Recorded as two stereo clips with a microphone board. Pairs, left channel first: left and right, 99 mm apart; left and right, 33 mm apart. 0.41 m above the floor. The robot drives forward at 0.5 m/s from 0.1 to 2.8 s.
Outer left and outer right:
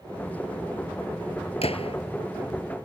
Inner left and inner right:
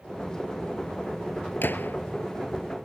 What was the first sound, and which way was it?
A gunshot, 85° left.